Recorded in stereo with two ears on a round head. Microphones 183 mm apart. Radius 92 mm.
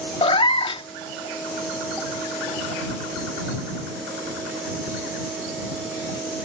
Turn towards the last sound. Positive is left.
turn(degrees=25)  # may be behind; listen again after turning